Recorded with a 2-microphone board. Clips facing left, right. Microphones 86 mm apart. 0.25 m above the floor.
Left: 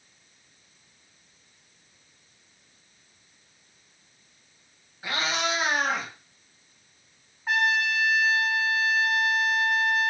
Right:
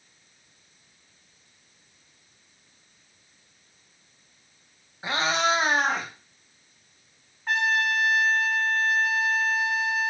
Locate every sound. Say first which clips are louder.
5.0 s a cat meowing: right 4 dB; 25° right (ahead or behind), 0.5 m
7.5 s a trumpet: even; 5° left (ahead or behind), 0.5 m